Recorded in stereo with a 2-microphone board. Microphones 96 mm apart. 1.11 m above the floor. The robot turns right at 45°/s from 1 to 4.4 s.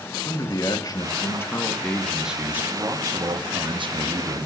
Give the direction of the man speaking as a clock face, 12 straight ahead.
8 o'clock.